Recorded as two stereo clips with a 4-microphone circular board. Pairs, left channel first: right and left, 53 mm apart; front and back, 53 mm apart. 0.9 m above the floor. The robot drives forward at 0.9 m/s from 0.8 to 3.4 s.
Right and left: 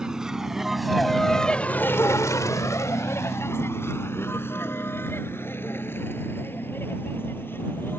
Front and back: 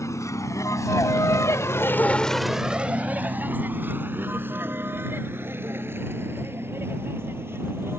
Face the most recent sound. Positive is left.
turn(degrees=-140)